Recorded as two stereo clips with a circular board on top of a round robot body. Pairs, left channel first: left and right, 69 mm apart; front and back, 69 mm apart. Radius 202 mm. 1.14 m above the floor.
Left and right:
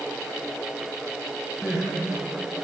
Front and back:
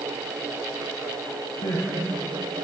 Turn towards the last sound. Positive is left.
turn(degrees=-5)